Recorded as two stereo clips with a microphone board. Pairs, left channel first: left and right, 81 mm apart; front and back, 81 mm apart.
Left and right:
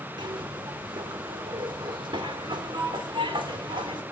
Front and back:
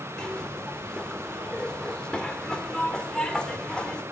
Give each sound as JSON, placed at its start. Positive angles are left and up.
{"t": 0.2, "sound": "a zipper", "azimuth_deg": -80, "distance_m": 1.9}